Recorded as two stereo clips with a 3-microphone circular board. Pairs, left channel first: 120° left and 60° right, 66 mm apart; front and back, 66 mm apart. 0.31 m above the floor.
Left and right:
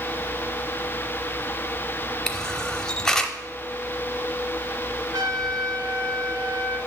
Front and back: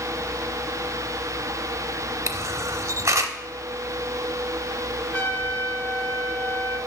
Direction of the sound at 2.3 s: 160° right.